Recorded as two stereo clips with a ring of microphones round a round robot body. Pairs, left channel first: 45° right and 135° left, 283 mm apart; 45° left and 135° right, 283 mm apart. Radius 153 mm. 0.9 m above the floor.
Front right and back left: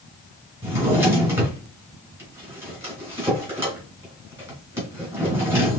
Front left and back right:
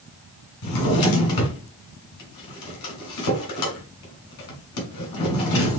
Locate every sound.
0.6 s a drawer: 55° left, 2.5 m